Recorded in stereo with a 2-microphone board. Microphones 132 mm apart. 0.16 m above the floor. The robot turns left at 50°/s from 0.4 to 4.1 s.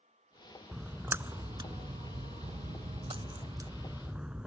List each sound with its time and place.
0.7 s a splash: centre (ahead or behind); by 4.5 s 5° right (ahead or behind)